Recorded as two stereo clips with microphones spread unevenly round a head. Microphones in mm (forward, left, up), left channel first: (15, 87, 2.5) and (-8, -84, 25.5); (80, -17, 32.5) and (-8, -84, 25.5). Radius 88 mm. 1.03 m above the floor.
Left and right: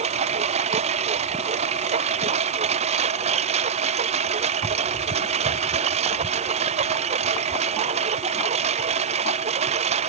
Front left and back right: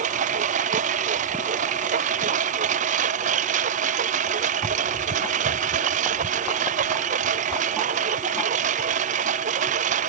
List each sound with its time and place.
0.0 s a lawn mower: 155° right